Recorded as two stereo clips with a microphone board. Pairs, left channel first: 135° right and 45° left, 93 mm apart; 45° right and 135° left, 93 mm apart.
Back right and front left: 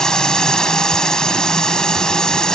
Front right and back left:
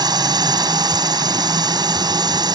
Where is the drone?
145° left.